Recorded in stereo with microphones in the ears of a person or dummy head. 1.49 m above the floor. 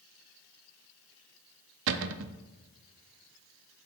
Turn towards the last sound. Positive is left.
turn(degrees=-70)  # may be behind; listen again after turning